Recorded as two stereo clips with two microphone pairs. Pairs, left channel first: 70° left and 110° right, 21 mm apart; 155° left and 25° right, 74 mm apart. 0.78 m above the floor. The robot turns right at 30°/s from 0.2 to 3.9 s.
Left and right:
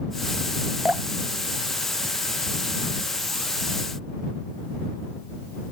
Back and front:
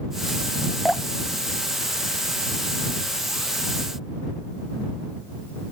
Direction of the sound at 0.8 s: 120° right.